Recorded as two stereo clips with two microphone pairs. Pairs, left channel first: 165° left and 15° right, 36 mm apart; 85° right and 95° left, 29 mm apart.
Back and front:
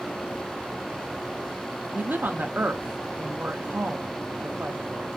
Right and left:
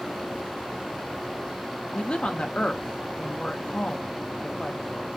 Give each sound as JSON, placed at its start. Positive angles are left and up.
{"t": 1.9, "sound": "a woman speaking", "azimuth_deg": -35, "distance_m": 0.7}